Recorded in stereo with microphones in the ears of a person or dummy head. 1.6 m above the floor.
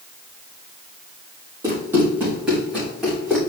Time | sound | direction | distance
1.6 | running footsteps | 15° right (ahead or behind) | 3 m